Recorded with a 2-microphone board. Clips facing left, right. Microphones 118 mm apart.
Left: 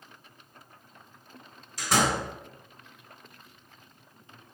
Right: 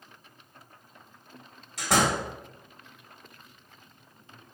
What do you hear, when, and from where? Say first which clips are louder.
1.8 s a door slam: right 1 dB; 70° right (ahead or behind), 1.6 m